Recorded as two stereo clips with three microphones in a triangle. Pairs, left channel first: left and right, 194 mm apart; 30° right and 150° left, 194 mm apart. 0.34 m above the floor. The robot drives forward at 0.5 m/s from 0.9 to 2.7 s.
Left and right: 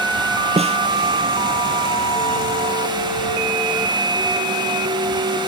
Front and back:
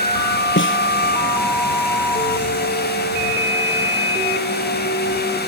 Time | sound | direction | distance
0.6 | a snare drum | 30° right | ?